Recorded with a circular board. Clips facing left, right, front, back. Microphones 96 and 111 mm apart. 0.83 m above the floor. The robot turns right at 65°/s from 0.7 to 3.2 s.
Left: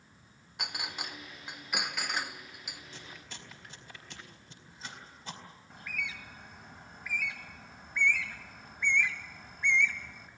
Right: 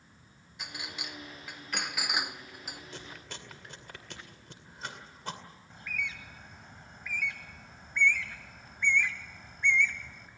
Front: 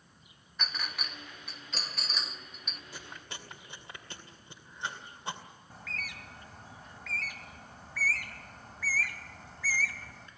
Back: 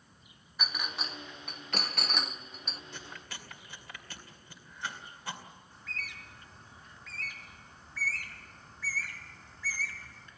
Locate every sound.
0.6 s a clink: 100° left, 0.7 m; by 2.8 s 120° right, 0.7 m
2.9 s chewing: 85° right, 2.5 m; by 5.4 s 65° right, 2.5 m
5.7 s a bird: 5° left, 1.6 m